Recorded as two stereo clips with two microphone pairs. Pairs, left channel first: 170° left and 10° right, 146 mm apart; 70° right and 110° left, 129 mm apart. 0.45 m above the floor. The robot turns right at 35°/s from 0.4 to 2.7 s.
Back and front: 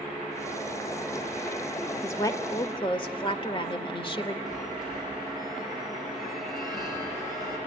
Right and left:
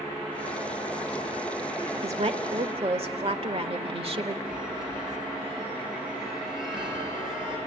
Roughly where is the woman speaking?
Left.